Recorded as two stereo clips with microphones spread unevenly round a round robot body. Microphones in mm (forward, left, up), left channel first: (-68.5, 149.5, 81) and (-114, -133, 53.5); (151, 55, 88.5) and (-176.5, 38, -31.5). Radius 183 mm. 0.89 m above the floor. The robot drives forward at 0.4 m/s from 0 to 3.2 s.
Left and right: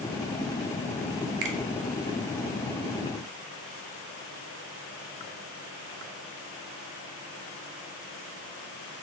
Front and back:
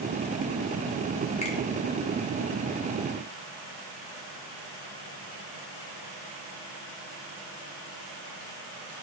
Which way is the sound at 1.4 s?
75° right.